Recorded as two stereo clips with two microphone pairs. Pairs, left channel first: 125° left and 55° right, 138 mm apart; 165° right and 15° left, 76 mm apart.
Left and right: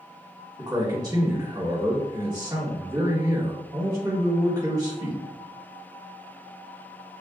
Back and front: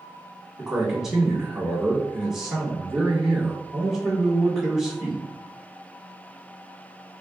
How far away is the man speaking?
About 1.2 m.